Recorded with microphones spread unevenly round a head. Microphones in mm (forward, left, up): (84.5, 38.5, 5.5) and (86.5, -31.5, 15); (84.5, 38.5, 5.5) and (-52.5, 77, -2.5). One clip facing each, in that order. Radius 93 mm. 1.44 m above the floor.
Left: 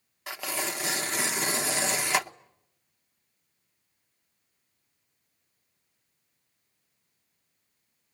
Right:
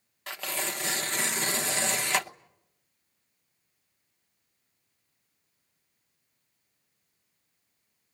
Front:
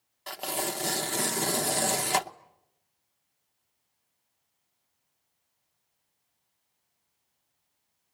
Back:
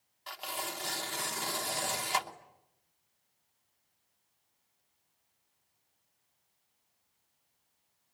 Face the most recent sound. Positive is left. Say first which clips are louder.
# left 1 dB, front 8 dB
turn(degrees=5)